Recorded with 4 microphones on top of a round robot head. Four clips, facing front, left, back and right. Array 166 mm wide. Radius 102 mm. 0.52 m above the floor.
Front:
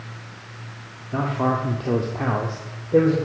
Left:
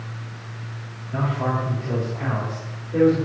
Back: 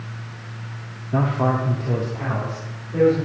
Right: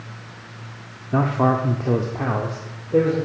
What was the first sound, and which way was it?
A man speaking, 100° right.